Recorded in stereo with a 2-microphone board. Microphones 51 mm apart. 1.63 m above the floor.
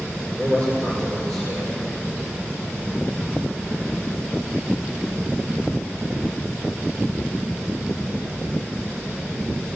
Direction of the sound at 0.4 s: 60° right (ahead or behind).